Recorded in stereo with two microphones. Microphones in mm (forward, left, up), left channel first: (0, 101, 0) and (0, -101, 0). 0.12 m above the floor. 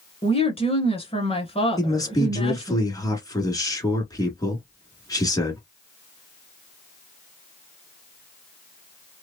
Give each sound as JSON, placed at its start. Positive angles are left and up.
{"t": 0.2, "sound": "a woman speaking", "side_deg": 30, "distance_m": 1.2}
{"t": 1.8, "sound": "a man speaking", "side_deg": 20, "distance_m": 1.4}